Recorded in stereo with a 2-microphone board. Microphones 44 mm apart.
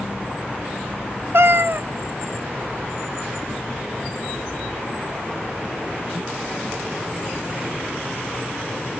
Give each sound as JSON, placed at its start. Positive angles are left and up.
{"t": 1.3, "sound": "a cat meowing", "side_deg": -65, "distance_m": 0.6}